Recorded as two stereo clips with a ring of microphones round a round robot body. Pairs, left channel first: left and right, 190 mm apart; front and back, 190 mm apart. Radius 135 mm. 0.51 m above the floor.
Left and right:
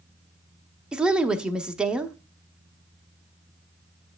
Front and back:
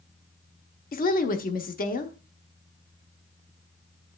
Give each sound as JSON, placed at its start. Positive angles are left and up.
{"t": 0.9, "sound": "a woman speaking", "azimuth_deg": -5, "distance_m": 0.9}